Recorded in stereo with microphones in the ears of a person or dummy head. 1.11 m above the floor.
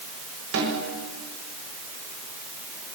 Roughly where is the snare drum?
Right.